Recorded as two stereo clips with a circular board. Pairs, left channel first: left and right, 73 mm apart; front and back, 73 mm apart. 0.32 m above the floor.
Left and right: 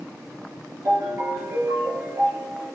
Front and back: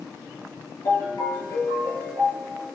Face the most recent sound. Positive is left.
turn(degrees=-30)